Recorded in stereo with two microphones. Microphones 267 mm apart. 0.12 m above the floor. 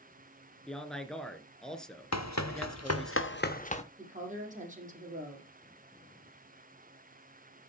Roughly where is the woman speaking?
Right.